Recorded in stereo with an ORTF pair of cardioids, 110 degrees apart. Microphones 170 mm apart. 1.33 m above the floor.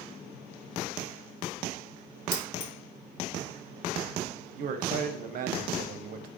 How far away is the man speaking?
About 0.6 m.